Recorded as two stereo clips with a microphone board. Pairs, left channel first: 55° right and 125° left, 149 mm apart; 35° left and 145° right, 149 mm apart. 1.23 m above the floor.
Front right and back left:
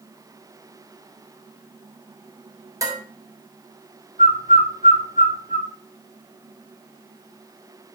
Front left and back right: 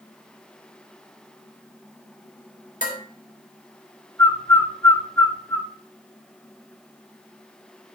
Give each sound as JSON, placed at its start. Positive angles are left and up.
{"t": 2.8, "sound": "dishes clattering", "azimuth_deg": 55, "distance_m": 3.0}
{"t": 4.2, "sound": "a bird", "azimuth_deg": -35, "distance_m": 1.4}